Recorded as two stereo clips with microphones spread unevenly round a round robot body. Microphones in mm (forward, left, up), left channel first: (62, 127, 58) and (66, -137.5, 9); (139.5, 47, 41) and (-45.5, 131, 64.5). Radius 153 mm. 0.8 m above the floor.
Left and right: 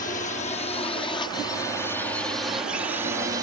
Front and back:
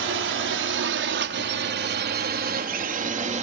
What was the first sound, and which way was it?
A drone, 155° left.